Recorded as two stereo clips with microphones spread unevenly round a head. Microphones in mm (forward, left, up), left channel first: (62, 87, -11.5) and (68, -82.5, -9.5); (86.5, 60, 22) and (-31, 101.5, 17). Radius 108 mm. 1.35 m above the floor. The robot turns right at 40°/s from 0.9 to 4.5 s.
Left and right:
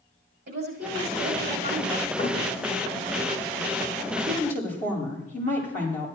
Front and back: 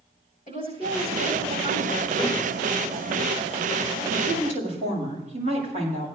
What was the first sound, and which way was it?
A woman speaking, 70° right.